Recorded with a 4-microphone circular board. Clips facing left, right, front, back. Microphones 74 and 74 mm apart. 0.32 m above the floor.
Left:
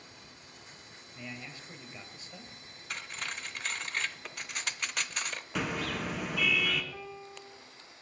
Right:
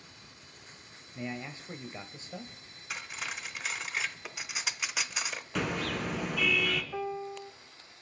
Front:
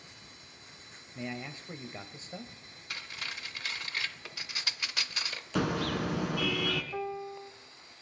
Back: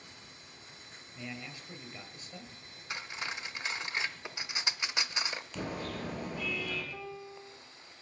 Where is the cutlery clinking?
160° right, 0.7 m.